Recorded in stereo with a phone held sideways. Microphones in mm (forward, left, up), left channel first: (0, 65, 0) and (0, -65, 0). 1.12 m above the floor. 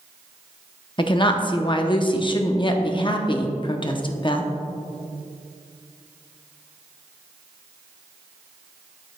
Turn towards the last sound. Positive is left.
turn(degrees=40)  # may be behind; listen again after turning